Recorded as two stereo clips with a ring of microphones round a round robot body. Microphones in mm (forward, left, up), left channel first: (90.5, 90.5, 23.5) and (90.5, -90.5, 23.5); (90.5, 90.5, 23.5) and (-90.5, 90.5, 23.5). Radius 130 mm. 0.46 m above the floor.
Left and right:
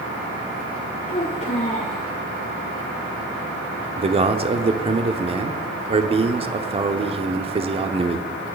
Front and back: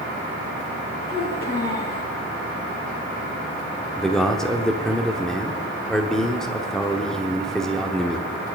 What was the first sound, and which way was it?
A child speaking, 35° left.